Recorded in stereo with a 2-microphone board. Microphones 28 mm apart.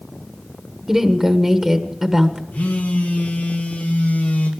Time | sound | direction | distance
0.9 | a woman speaking | 5° right (ahead or behind) | 1.4 m
2.5 | a phone buzzing | 60° left (ahead or behind) | 2.5 m